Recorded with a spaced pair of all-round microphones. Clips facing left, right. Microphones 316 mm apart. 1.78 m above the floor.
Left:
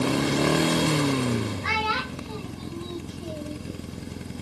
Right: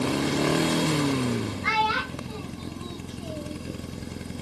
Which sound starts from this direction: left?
A child speaking, at 1.6 s.